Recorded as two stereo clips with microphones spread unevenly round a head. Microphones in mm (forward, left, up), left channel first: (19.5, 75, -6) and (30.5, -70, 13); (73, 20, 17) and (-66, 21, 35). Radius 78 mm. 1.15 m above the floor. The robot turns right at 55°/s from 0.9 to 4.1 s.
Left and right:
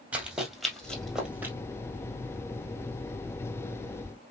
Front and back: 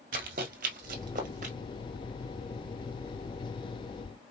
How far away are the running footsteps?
About 2 m.